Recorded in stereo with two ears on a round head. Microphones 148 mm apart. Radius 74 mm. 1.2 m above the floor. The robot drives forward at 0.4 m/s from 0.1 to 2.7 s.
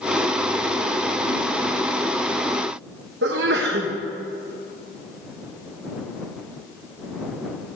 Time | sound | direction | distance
3.2 | a sneeze | 80° right | 1.1 m